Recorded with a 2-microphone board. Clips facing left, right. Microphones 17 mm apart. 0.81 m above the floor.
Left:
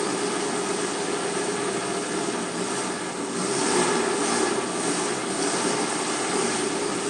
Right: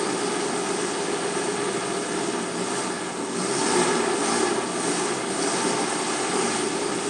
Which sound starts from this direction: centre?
An engine running, at 0.0 s.